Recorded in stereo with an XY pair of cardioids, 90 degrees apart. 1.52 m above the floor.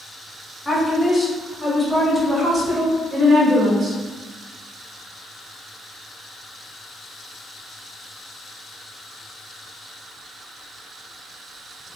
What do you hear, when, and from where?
0.7 s a woman speaking: 10° left, 1.8 m; by 4.0 s 50° right, 1.7 m